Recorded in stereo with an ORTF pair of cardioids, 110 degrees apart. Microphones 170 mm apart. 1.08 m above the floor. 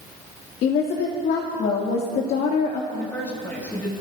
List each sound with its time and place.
0.6 s a woman speaking: 65° left, 2 m
2.9 s a woman speaking: 10° left, 6 m